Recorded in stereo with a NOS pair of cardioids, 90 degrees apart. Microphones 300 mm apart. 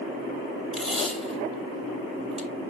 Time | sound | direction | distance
0.7 | tape being pulled | straight ahead | 2 m